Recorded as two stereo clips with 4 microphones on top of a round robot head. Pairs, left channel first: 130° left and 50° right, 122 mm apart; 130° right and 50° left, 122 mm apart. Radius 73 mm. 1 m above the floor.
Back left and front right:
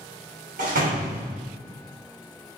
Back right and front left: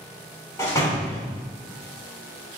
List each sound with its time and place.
0.6 s a door slam: 60° right, 3 m